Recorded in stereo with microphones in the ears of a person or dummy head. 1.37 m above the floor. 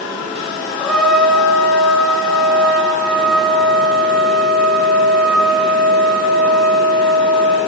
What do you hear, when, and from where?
0.8 s a trumpet: 5° right (ahead or behind), 1.5 m